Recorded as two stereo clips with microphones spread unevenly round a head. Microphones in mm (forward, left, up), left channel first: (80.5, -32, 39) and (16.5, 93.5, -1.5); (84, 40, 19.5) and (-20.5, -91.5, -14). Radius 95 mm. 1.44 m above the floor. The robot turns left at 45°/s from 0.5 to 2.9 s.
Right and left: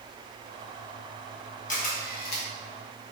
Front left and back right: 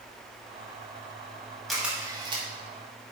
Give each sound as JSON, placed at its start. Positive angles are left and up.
{"t": 1.7, "sound": "a camera shutter", "azimuth_deg": -35, "distance_m": 2.5}